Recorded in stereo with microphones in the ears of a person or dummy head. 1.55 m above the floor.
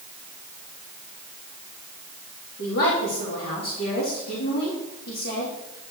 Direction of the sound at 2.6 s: 60° left (ahead or behind).